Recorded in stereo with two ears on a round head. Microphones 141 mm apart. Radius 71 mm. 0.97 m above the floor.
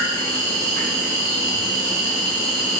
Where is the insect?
60° right (ahead or behind), 2 m.